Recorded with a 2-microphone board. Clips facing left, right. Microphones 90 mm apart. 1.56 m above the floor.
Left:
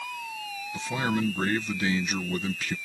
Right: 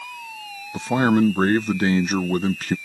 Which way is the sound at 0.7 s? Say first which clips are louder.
Right 10 dB; 45° right (ahead or behind).